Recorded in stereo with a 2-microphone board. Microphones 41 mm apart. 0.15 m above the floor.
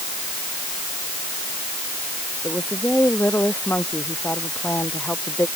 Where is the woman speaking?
50° left (ahead or behind).